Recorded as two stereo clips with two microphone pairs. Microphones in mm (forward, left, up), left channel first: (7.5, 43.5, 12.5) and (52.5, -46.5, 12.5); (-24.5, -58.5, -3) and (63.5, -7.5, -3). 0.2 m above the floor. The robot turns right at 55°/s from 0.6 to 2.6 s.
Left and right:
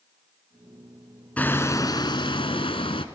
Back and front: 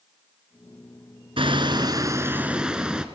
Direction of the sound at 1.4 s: 40° left.